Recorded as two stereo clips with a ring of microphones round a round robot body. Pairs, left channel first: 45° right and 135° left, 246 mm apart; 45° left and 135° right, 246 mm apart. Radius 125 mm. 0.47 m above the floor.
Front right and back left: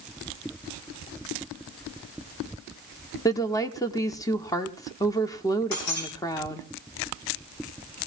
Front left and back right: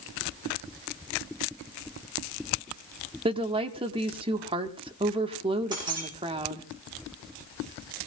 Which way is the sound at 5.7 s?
65° right.